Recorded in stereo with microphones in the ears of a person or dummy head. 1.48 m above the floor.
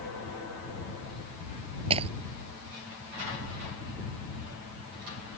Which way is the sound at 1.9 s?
35° right (ahead or behind).